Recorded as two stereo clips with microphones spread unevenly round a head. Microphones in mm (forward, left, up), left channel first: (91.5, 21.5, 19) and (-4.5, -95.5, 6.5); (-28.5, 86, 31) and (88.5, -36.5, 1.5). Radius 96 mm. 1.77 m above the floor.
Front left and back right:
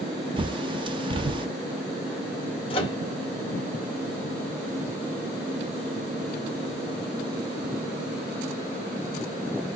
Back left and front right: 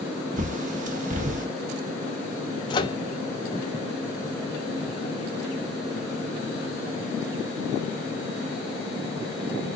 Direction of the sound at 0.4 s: 85° right.